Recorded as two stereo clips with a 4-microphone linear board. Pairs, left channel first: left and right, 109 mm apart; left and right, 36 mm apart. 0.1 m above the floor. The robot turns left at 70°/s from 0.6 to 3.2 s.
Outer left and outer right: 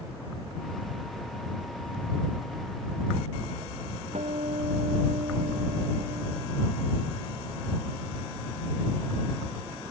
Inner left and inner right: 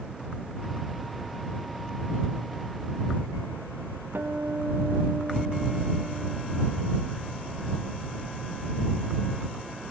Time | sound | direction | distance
4.1 | a guitar | 85° right | ?